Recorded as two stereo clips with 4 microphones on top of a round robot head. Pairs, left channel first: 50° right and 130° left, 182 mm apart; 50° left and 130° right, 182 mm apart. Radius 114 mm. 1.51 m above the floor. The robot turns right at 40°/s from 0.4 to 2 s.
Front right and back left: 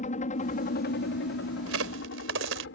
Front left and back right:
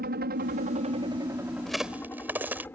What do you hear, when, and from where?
0.0 s a helicopter: 95° right; by 2.8 s 35° right
1.7 s a crack: 135° left; by 2.7 s 145° left